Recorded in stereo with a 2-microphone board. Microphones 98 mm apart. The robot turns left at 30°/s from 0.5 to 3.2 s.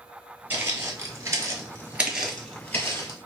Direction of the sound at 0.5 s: 20° right (ahead or behind).